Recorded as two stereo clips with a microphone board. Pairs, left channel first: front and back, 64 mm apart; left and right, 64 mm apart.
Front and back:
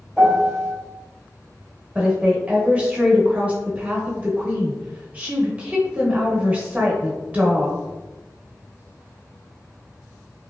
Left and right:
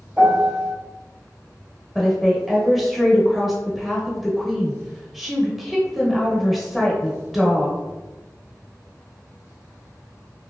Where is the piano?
70° right, 1.4 m.